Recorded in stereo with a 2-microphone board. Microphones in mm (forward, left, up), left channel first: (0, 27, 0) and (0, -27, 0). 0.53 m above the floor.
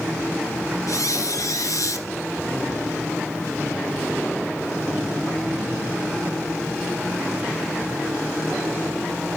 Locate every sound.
0.9 s a squeak: 80° left, 1.9 m